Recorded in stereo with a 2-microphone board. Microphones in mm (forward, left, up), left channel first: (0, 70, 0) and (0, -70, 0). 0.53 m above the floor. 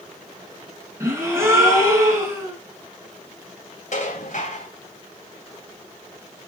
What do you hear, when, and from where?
1.0 s a gasp: 20° right (ahead or behind), 3.5 m
3.9 s dishes clattering: 65° left (ahead or behind), 2 m